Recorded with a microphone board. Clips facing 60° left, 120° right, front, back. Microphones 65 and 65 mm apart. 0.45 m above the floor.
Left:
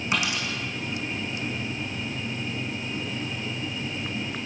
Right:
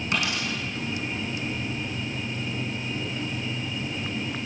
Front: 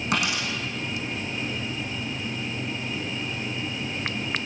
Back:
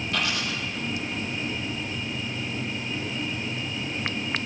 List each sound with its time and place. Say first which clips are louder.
0.1 s a dropped coin: even, front 2 dB; 10° right, 5 m